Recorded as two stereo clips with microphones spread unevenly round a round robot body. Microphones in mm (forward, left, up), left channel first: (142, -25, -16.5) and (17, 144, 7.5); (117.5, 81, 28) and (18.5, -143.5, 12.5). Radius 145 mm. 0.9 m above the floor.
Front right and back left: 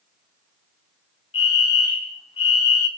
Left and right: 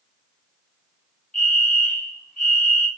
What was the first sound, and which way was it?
A fire alarm, 5° left.